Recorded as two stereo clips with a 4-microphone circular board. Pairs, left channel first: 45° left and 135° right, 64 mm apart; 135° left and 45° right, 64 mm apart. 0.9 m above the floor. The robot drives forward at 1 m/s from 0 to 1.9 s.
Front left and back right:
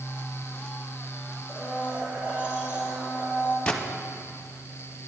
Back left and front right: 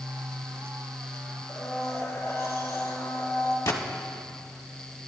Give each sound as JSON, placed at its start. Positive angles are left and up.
{"t": 1.5, "sound": "a blender", "azimuth_deg": 155, "distance_m": 3.0}
{"t": 3.7, "sound": "a gunshot", "azimuth_deg": 120, "distance_m": 1.1}